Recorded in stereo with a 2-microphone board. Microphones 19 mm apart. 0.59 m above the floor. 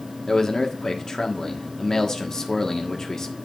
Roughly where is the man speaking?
Left.